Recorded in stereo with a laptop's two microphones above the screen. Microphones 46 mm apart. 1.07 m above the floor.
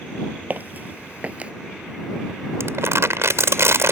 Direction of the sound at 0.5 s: 40° right (ahead or behind).